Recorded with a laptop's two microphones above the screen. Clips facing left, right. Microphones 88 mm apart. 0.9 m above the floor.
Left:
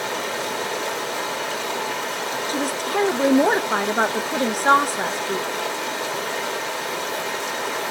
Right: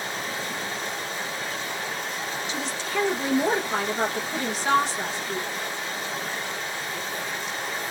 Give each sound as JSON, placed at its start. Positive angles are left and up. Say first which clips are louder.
{"t": 0.0, "sound": "running water", "louder": "left 6 dB", "side_deg": 80, "distance_m": 1.4}
{"t": 2.5, "sound": "a woman speaking", "louder": "left 7 dB", "side_deg": 40, "distance_m": 0.8}